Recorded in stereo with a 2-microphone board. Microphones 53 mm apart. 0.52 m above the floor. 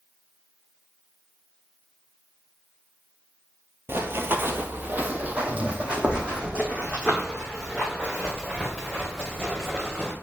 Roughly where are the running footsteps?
Right.